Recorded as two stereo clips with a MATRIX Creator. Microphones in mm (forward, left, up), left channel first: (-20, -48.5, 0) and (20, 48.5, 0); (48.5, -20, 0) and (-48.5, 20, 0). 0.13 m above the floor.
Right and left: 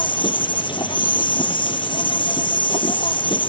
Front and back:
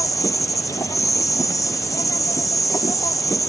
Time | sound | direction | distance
0.0 | an insect | 80° right | ?